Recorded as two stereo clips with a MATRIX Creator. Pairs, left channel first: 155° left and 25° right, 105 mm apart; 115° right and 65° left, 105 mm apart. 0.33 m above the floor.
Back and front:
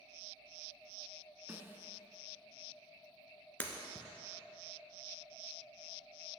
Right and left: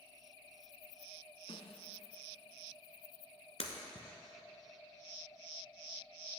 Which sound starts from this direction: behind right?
Breaking glass, at 3.6 s.